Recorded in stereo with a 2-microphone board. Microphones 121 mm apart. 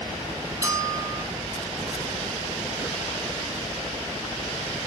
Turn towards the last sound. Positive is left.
turn(degrees=-25)  # may be behind; listen again after turning